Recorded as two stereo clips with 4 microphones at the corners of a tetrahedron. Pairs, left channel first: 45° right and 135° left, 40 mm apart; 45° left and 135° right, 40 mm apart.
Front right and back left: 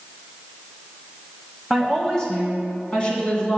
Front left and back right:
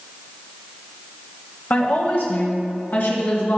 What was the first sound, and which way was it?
A woman speaking, 35° left.